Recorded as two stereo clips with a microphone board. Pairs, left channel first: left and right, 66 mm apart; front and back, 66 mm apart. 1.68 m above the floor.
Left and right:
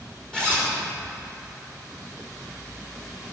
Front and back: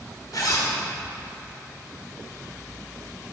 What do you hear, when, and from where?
0.3 s a zipper: 10° left, 2.5 m